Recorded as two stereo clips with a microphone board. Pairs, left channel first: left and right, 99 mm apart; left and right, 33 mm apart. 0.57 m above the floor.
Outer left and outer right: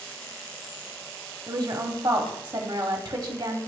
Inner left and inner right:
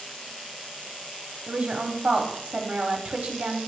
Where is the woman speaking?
40° right (ahead or behind), 0.9 m.